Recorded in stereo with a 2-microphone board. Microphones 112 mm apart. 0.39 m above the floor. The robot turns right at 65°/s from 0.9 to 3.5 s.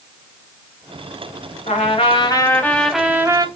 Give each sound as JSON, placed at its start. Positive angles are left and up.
{"t": 1.7, "sound": "a trumpet", "azimuth_deg": 100, "distance_m": 0.6}